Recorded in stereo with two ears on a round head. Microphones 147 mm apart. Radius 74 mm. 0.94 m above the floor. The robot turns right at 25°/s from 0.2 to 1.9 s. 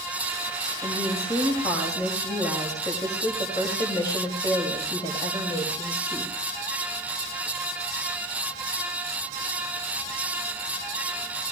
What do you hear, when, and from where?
0.8 s a woman speaking: centre (ahead or behind), 5 m; by 6.3 s 25° left (ahead or behind), 5 m